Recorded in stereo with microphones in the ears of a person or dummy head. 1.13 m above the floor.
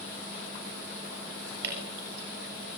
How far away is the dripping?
About 7.5 m.